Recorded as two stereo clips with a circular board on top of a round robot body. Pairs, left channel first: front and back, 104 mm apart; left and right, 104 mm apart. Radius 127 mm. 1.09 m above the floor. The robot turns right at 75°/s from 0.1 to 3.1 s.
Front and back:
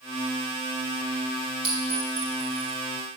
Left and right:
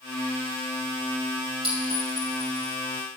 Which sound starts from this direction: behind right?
A clink, at 1.6 s.